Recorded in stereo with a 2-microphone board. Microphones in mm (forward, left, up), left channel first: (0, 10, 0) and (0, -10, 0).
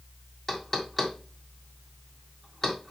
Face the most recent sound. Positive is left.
turn(degrees=15)  # may be behind; listen again after turning